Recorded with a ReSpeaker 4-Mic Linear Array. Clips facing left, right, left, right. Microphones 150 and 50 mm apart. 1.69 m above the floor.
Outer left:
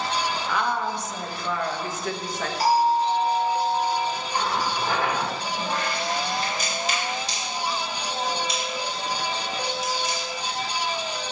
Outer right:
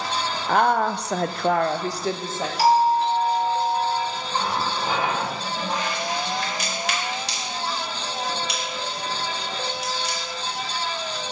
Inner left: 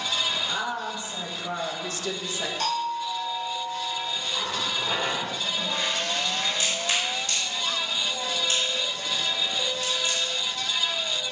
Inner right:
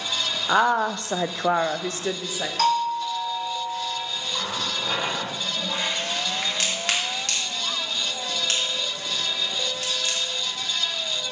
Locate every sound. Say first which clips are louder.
0.5 s a woman speaking: outer right 9 dB, inner right 9 dB; 50° right (ahead or behind), 0.7 m; by 2.5 s 20° right (ahead or behind), 0.9 m
2.6 s a doorbell: outer right 2 dB, inner right 7 dB; 80° right, 2 m
4.3 s a running tap: outer right 2 dB, inner right 1 dB; 20° right (ahead or behind), 2 m
6.4 s a crack: even, inner right 1 dB; 70° right (ahead or behind), 2.5 m